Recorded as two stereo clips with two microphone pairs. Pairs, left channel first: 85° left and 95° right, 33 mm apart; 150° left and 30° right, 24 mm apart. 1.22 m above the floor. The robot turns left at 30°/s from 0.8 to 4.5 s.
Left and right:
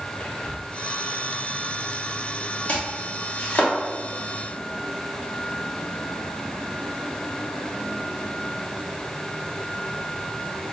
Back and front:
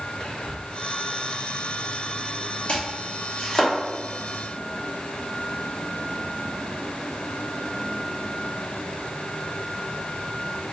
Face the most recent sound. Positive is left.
turn(degrees=60)